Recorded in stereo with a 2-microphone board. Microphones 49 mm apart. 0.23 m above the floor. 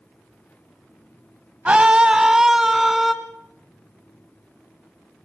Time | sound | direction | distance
1.6 | a scream | 25° right (ahead or behind) | 1.2 m